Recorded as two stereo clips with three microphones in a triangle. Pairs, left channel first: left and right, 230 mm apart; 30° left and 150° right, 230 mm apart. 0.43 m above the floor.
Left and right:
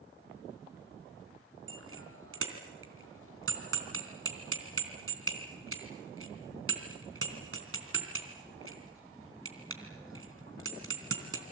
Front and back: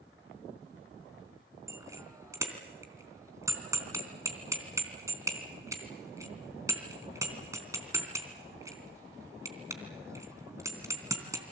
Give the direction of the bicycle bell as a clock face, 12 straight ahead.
2 o'clock.